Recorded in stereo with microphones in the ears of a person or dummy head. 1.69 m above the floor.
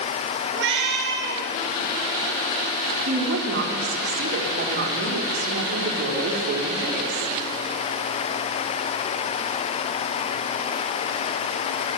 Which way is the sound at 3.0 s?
50° right (ahead or behind).